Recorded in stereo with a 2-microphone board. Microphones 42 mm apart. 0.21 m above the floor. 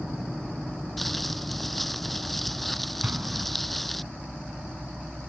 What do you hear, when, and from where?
1.0 s crumpling: 5° left (ahead or behind)
3.0 s an explosion: 50° right (ahead or behind)